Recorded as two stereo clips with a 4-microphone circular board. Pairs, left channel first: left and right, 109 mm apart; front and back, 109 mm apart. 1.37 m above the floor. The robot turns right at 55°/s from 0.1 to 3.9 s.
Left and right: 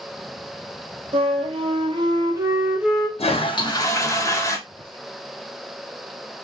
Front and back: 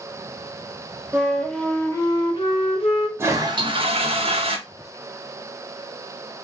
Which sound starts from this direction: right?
A flute, at 1.1 s.